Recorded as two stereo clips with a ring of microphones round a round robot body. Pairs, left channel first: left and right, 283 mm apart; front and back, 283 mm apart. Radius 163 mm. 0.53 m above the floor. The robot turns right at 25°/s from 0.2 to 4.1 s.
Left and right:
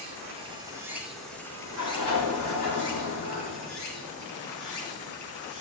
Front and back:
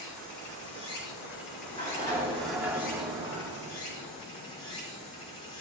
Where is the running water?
25° right, 5 m; by 5.6 s 75° left, 5 m.